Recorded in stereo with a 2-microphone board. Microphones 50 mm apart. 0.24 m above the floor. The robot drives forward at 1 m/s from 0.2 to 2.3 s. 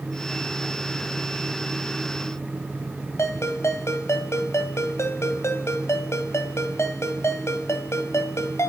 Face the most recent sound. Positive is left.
turn(degrees=60)  # may be behind; listen again after turning